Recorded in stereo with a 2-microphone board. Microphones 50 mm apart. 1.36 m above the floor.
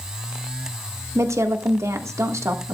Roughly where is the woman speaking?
Right.